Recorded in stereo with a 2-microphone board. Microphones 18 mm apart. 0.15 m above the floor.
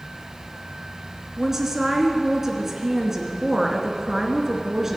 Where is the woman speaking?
20° right (ahead or behind), 2 m.